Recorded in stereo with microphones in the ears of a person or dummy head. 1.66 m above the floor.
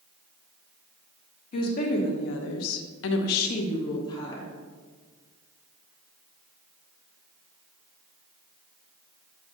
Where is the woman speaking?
40° left (ahead or behind), 1.3 m; by 4.5 s 20° left (ahead or behind), 1.3 m.